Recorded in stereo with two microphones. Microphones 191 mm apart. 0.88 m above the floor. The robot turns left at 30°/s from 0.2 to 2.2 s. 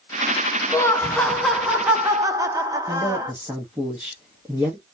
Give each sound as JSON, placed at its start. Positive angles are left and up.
{"t": 0.7, "sound": "laughter", "azimuth_deg": 20, "distance_m": 0.7}
{"t": 2.9, "sound": "a man speaking", "side_deg": -10, "distance_m": 0.8}